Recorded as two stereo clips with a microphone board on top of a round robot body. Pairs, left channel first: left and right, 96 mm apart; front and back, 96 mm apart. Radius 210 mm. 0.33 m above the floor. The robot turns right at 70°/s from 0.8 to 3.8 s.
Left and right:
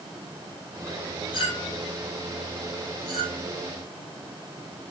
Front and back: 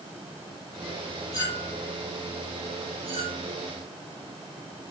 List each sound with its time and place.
1.3 s a clink: 50° left, 10 m; by 3.4 s 165° right, 10 m